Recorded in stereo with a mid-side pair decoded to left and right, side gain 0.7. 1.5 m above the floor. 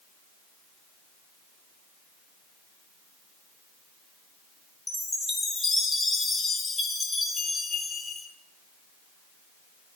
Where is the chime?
10° left, 3 m.